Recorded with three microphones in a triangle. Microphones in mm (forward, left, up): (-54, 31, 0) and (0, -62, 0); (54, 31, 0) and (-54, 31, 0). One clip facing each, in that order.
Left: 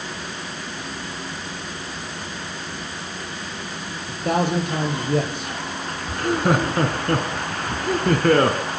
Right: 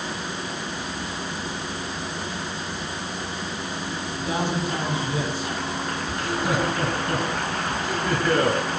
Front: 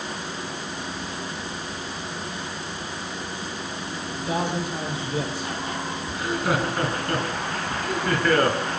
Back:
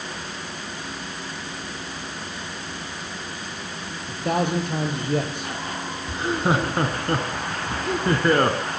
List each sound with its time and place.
4.1 s a man speaking: 150° left, 7.5 m
6.1 s laughter: 125° left, 2.5 m